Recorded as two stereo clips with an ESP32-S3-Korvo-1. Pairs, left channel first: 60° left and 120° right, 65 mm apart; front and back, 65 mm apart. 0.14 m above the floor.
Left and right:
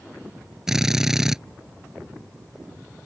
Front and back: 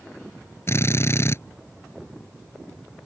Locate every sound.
0.7 s a drill: 40° right